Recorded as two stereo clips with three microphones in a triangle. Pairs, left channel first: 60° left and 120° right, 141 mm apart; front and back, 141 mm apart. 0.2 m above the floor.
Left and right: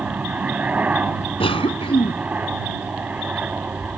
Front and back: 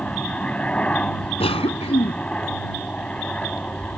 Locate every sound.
0.0 s a helicopter: 65° right
1.4 s a cough: 25° left